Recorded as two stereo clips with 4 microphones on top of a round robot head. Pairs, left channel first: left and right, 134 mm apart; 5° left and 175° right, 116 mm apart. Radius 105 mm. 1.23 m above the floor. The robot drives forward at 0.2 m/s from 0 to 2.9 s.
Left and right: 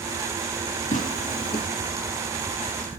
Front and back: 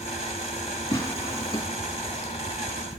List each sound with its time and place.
0.9 s tearing paper: 60° left, 2 m; by 1.6 s 65° left, 2.0 m